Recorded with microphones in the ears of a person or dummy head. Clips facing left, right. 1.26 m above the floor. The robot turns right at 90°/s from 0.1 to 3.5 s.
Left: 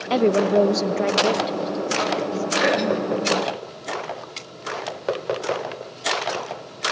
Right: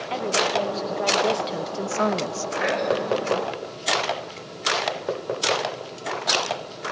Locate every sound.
0.1 s a woman speaking: 60° left, 0.8 m; by 2.5 s 85° right, 0.8 m
2.6 s throat clearing: 50° left, 3 m; by 3.2 s 105° left, 3 m